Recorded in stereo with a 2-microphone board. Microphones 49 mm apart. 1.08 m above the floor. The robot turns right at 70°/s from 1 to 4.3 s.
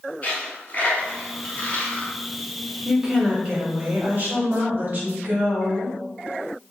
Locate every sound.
0.2 s a dropped coin: 30° left (ahead or behind), 1.1 m; by 2.1 s 20° left (ahead or behind), 1.1 m
2.9 s a woman speaking: 170° right, 0.9 m; by 6.0 s 70° right, 0.9 m